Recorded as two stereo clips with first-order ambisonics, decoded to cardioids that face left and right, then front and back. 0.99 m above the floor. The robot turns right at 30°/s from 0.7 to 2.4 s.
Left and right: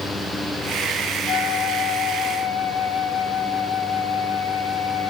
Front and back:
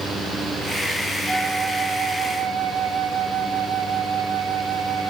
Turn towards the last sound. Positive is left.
turn(degrees=145)